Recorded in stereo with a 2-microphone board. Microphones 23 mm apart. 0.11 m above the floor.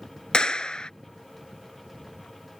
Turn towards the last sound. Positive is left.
turn(degrees=40)  # may be behind; listen again after turning